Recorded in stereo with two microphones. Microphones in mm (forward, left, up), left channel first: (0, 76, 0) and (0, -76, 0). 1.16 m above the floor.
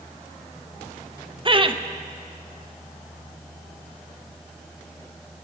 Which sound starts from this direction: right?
Laughter, at 1.4 s.